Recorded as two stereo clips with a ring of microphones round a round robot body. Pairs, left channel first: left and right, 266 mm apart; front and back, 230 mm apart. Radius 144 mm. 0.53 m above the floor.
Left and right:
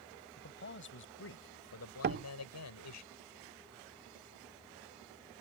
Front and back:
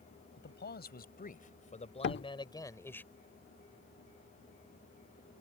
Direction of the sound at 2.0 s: 40° right.